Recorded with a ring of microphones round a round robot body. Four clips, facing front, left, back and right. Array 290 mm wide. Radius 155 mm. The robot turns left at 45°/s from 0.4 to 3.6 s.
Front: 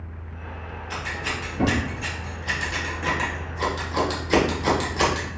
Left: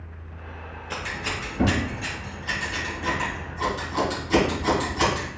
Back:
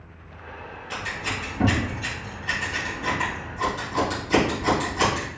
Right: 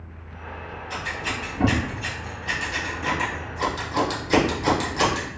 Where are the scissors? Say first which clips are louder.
Right 1 dB, even; 75° left, 1.6 m; by 5.3 s 45° right, 1.6 m.